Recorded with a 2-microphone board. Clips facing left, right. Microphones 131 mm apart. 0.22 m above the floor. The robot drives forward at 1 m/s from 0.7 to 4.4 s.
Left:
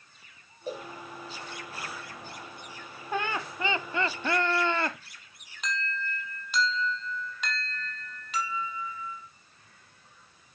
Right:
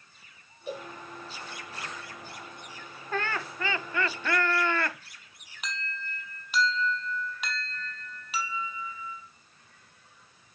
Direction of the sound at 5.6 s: 10° right (ahead or behind).